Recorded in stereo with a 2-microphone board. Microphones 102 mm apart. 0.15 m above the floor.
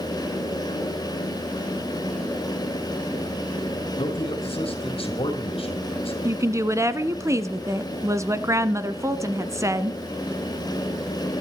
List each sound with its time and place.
4.0 s a man speaking: 55° left (ahead or behind), 4 m
6.2 s a woman speaking: 25° right (ahead or behind), 1.2 m